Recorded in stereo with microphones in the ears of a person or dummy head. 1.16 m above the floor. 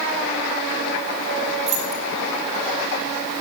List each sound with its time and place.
1.7 s keys jangling: 40° right (ahead or behind), 1.2 m